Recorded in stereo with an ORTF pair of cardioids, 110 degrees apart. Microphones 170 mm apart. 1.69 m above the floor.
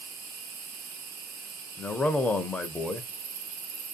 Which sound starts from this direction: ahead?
A man speaking, at 1.8 s.